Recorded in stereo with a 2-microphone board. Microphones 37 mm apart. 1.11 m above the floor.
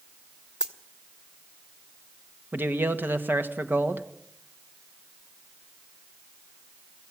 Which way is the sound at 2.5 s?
65° right (ahead or behind).